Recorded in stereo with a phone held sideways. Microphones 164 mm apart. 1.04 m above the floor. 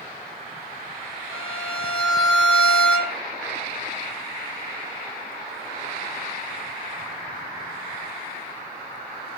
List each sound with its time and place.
1.3 s a violin: 40° right (ahead or behind), 2.5 m